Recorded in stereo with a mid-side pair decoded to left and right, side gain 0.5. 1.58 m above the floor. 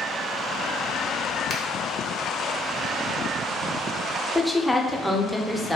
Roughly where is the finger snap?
Ahead left.